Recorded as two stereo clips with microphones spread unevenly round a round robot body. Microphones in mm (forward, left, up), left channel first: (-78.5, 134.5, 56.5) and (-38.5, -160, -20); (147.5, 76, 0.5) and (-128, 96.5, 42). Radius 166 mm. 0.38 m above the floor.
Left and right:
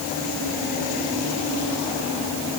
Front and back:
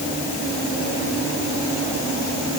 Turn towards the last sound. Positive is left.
No sound to turn to.